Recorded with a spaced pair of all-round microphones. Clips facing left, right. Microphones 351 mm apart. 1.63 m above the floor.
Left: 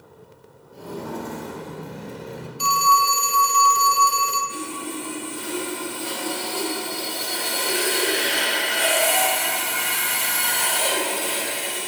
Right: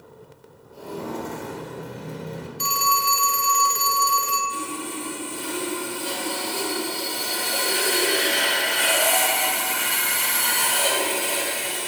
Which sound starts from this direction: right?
A phone ringing, at 2.6 s.